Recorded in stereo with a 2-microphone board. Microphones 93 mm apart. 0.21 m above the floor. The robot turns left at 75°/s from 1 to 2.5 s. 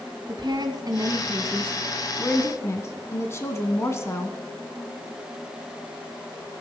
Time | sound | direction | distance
0.3 | a woman speaking | 105° right | 1.5 m